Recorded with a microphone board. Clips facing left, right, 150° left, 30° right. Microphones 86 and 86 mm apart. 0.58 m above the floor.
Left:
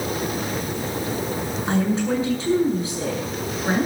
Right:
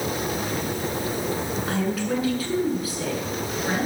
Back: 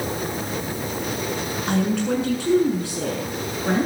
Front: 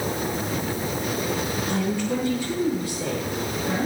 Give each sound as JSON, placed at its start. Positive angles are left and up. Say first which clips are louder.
{"t": 1.7, "sound": "a woman speaking", "louder": "left 5 dB, back 5 dB", "azimuth_deg": 150, "distance_m": 7.5}